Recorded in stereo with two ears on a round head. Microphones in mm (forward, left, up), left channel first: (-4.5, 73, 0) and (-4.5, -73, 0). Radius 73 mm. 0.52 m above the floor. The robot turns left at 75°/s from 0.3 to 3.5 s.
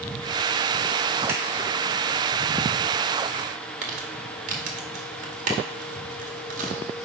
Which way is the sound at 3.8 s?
50° right (ahead or behind).